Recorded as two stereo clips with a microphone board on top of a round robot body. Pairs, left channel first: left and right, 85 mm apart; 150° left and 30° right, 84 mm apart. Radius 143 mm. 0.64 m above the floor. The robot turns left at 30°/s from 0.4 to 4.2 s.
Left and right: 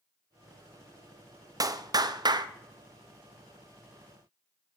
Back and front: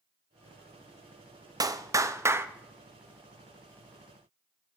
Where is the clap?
60° right, 0.9 m; by 2.5 s 85° right, 0.9 m.